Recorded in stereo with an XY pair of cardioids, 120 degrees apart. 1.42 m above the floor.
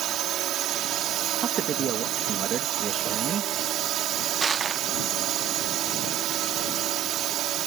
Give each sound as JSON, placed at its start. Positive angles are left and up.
{"t": 0.0, "sound": "a drone", "azimuth_deg": -70}
{"t": 1.4, "sound": "a man speaking", "azimuth_deg": -55}
{"t": 4.4, "sound": "crushing", "azimuth_deg": -30}